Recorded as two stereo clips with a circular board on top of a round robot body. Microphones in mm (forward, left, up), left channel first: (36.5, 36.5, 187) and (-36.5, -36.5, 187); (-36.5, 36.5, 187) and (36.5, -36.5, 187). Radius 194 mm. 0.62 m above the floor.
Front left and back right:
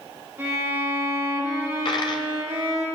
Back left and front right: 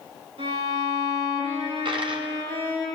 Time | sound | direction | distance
0.4 | a violin | 65° right | 7 m
1.9 | a dropped coin | 5° right | 0.8 m